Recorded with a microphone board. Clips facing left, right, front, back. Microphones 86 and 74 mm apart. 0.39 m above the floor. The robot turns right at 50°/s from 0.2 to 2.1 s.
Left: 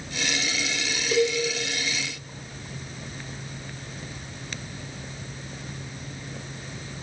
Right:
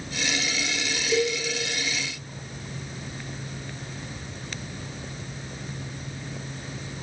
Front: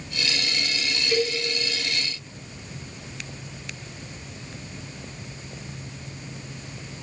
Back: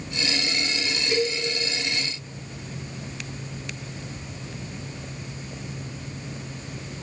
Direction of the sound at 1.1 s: 95° left.